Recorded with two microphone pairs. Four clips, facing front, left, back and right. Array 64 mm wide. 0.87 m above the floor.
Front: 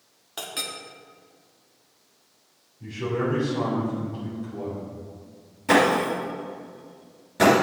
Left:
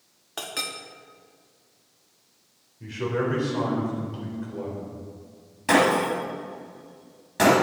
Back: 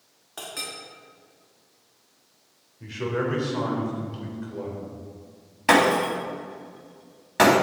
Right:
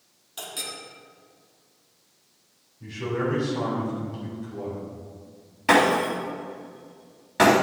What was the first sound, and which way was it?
A clink, 80° left.